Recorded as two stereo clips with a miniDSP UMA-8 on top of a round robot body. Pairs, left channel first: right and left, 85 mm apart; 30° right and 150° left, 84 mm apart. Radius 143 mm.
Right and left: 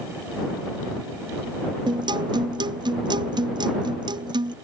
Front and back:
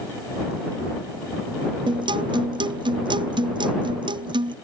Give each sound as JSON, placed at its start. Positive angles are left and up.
{"t": 1.9, "sound": "a guitar", "azimuth_deg": 120}